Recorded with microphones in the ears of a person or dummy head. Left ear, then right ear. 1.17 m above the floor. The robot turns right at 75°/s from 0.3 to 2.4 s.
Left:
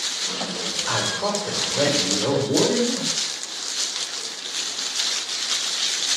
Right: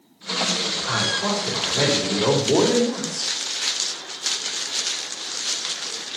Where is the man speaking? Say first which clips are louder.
Even; 140° left, 4 m; by 3.3 s 105° right, 4 m.